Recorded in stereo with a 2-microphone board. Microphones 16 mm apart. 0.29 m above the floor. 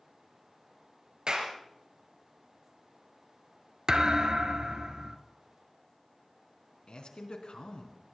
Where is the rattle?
No rattle in this recording.